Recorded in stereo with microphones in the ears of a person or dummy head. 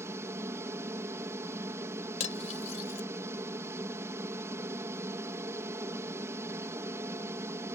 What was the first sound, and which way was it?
An aircraft, 15° right (ahead or behind).